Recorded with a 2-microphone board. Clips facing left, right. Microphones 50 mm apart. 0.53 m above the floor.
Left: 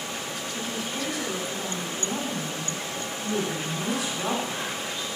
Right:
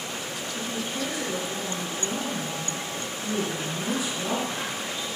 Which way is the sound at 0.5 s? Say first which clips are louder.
Right 1 dB; 75° left (ahead or behind).